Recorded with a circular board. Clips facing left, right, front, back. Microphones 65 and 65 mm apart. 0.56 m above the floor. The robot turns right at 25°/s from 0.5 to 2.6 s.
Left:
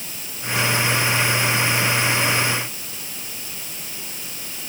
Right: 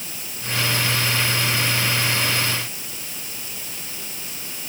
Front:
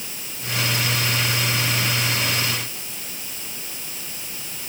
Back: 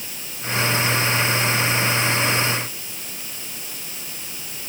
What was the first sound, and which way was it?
Only background noise.